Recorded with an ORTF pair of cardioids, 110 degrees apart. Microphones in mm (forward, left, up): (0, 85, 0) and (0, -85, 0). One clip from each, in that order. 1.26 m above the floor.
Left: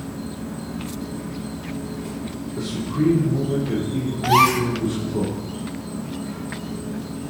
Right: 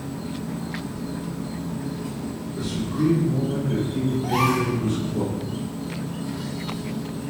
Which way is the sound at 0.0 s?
10° left.